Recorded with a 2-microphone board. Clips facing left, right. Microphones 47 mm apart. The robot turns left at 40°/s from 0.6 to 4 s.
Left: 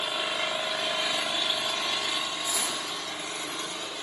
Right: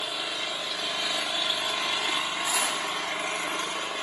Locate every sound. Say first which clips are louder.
0.0 s an engine running: left 2 dB; 30° left, 1.6 m; by 4.0 s 105° right, 1.6 m
2.5 s cutlery clinking: right 4 dB; 65° right (ahead or behind), 5.5 m; by 2.8 s 75° right (ahead or behind), 5.5 m